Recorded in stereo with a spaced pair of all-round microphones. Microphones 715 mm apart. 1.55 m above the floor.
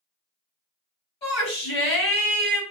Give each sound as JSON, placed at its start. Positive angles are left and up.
{"t": 1.2, "sound": "a shout", "side_deg": 75, "distance_m": 1.7}